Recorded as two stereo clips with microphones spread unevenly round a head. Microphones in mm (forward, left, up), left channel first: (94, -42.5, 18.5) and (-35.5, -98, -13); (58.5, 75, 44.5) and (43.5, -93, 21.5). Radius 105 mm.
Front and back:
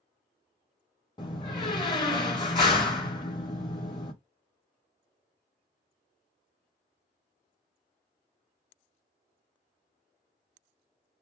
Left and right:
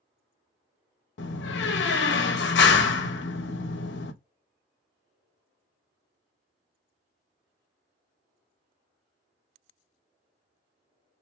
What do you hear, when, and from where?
1.2 s a door slam: 95° left, 0.8 m